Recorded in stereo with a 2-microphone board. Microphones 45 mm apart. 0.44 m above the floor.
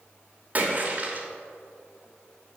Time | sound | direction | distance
0.6 | a splash | 40° right (ahead or behind) | 1.1 m